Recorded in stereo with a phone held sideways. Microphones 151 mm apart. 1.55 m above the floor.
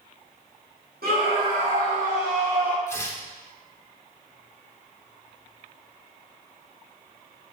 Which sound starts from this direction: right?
A scream, at 1.0 s.